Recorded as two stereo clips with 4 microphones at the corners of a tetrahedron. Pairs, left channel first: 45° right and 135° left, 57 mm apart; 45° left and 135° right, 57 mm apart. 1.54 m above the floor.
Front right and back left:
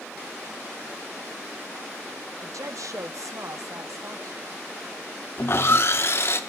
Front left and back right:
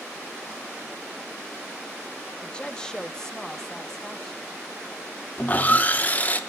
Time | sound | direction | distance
2.4 | a woman speaking | 115° left | 0.8 m
5.4 | sawing | 10° right | 1.0 m